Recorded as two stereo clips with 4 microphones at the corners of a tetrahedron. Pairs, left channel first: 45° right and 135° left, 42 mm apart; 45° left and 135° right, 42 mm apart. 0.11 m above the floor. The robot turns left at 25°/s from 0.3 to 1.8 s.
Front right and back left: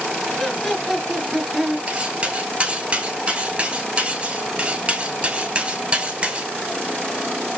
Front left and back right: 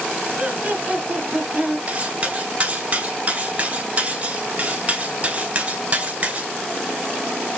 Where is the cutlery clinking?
175° right, 1.0 m.